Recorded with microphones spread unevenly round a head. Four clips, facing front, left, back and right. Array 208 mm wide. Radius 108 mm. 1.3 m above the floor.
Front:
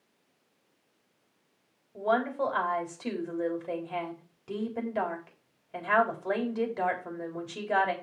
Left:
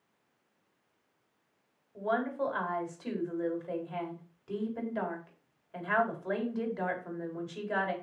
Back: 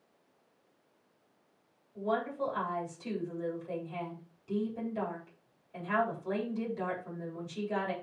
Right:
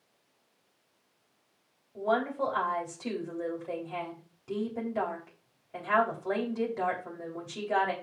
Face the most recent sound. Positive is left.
turn(degrees=-5)